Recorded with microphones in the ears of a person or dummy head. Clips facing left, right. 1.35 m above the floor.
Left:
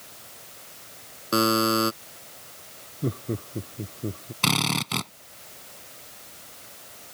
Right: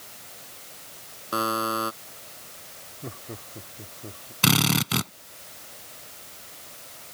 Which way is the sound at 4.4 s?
15° right (ahead or behind).